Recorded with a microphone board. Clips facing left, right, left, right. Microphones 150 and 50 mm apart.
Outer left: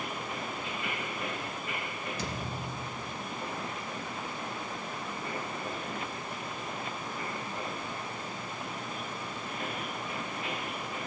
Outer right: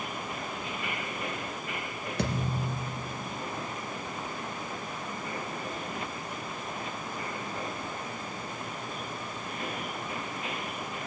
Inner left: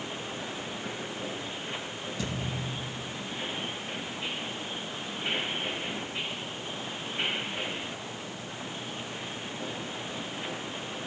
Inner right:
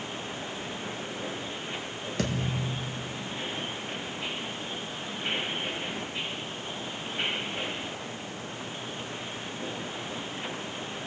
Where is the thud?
65° right (ahead or behind), 2 m.